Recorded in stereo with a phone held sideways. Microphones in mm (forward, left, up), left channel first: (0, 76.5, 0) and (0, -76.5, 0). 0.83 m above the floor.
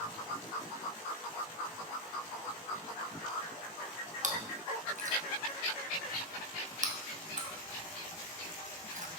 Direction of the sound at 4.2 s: 55° right (ahead or behind).